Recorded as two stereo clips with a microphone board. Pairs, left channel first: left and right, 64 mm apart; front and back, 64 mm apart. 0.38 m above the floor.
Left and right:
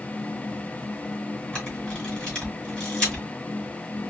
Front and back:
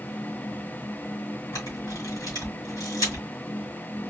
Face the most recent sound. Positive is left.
turn(degrees=10)